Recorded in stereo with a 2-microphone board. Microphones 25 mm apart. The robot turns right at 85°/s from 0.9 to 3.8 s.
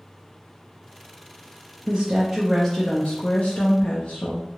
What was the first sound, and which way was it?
A woman speaking, 55° right.